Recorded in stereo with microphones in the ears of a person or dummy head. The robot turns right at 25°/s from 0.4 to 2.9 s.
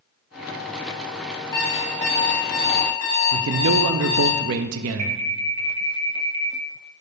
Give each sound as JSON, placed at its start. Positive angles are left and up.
{"t": 1.5, "sound": "an alarm clock", "azimuth_deg": 20, "distance_m": 3.0}
{"t": 3.3, "sound": "a man speaking", "side_deg": -70, "distance_m": 0.5}
{"t": 5.0, "sound": "an alarm", "side_deg": -35, "distance_m": 2.0}